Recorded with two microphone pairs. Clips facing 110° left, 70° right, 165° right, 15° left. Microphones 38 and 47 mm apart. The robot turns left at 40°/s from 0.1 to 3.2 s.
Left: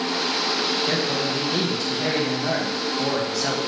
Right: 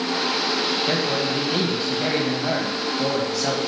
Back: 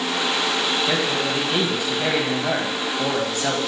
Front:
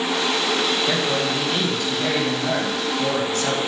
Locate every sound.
0.9 s a man speaking: 60° right, 1.5 m; by 3.6 s 155° right, 1.5 m